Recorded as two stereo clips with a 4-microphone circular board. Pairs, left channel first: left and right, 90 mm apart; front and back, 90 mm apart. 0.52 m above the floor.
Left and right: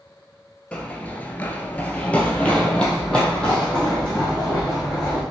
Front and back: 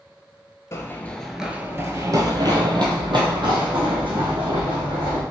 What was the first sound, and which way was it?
Running footsteps, 20° left.